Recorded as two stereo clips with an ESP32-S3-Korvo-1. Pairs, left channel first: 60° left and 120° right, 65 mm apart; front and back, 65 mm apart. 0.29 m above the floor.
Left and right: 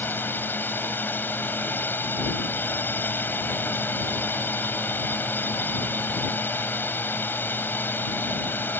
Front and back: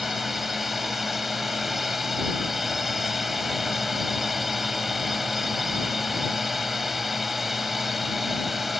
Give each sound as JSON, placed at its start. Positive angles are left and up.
{"t": 0.0, "sound": "a drone", "azimuth_deg": 95}